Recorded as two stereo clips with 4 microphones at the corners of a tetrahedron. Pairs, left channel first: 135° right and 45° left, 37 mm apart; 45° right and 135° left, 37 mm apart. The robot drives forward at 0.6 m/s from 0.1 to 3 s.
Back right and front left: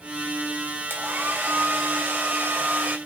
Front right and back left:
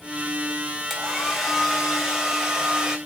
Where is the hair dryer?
45° left, 3.5 m; by 3.0 s 60° left, 3 m.